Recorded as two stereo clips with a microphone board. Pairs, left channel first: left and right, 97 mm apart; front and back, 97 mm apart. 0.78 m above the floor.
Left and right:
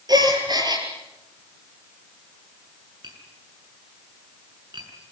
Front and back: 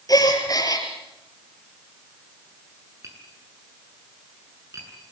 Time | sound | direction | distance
0.1 | a gasp | 50° right | 4 m
3.0 | tapping | 125° right | 7.5 m